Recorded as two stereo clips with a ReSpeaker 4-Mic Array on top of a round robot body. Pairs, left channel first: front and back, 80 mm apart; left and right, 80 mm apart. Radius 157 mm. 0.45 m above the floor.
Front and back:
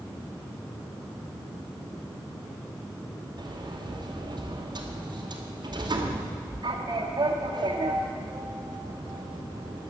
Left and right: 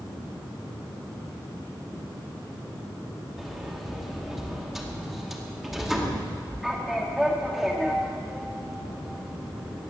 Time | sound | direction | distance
3.4 | a sliding door | 175° right | 2 m